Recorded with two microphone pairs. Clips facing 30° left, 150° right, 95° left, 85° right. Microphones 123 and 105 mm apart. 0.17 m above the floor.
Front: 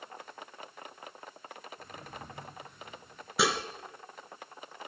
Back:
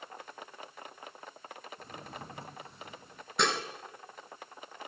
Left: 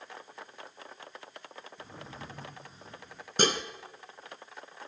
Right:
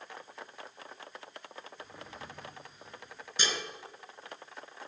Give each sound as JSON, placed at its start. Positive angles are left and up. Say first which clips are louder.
{"t": 1.8, "sound": "a drawer", "louder": "back 1 dB, left 3 dB", "azimuth_deg": 150, "distance_m": 4.0}
{"t": 3.4, "sound": "dishes clattering", "louder": "front 2 dB, left 8 dB", "azimuth_deg": 110, "distance_m": 1.4}